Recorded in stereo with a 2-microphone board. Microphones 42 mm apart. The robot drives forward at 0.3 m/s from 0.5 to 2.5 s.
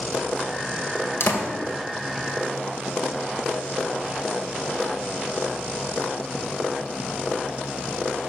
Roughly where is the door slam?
Left.